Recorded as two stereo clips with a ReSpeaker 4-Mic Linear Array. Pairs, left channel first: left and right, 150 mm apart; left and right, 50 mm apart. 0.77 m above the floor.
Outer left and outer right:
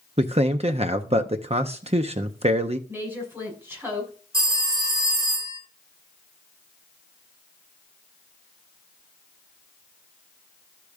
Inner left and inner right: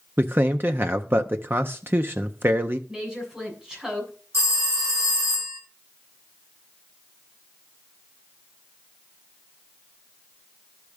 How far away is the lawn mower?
I don't hear a lawn mower.